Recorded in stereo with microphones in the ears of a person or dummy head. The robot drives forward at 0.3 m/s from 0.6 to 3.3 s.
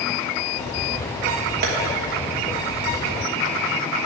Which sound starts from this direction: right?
Tapping, at 1.6 s.